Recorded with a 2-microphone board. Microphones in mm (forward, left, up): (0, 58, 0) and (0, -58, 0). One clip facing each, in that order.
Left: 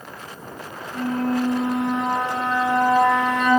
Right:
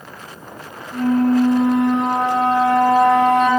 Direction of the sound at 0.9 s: 70° right (ahead or behind).